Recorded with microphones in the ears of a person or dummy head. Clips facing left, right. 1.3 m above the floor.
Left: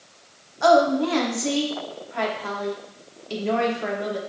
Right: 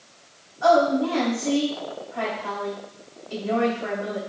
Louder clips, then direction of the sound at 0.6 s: Left 1 dB; 80° left.